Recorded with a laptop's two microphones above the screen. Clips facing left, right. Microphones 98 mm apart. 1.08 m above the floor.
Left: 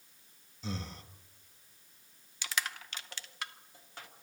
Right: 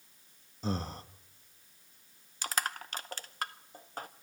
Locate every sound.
0.6 s breathing: 40° right (ahead or behind), 1.0 m
2.4 s crushing: 40° right (ahead or behind), 0.7 m